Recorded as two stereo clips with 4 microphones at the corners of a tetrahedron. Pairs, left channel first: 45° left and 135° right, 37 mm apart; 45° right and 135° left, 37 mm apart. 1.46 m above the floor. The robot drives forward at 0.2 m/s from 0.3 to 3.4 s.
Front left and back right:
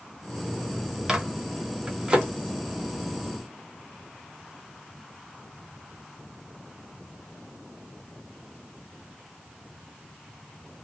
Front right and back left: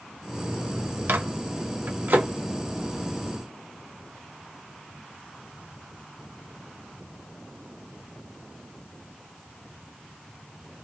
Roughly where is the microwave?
Behind left.